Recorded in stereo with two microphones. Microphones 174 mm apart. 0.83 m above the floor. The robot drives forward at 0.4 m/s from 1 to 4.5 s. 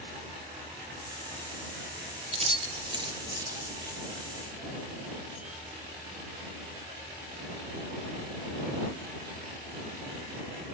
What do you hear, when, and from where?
2.3 s keys jangling: 35° right (ahead or behind), 0.7 m; by 4.0 s 20° right (ahead or behind), 1.2 m